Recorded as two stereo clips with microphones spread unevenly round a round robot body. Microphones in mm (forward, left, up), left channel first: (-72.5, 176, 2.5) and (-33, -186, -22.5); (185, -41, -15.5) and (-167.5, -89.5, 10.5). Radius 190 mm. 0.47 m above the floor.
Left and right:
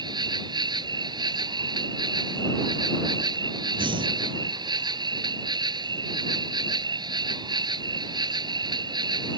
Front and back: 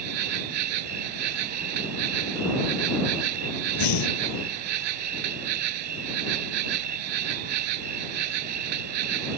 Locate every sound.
0.0 s an insect: 165° right
3.8 s breathing: 5° right